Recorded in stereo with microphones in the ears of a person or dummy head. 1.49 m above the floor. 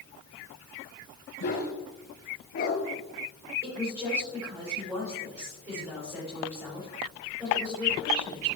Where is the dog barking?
55° left (ahead or behind), 6 m; by 2.8 s 45° left (ahead or behind), 6.5 m.